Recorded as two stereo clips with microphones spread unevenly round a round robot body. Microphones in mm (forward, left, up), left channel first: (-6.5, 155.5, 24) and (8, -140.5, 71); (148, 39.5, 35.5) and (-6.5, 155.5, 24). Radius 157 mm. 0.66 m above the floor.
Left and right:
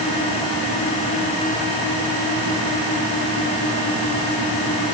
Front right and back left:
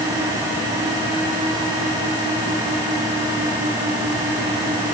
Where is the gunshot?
I don't hear a gunshot.